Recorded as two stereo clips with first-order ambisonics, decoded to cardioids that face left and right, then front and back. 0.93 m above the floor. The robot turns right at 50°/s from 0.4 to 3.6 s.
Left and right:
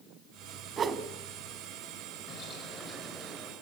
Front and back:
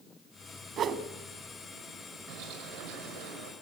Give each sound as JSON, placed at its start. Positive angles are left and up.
{"t": 0.8, "sound": "a whoosh", "azimuth_deg": -145, "distance_m": 1.0}
{"t": 2.3, "sound": "a bird", "azimuth_deg": 145, "distance_m": 5.0}